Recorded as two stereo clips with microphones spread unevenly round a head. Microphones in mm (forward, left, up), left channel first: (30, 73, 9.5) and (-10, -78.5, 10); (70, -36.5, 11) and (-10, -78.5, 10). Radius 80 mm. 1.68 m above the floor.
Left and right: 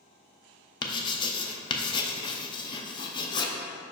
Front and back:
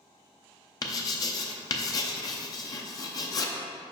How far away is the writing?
About 0.6 m.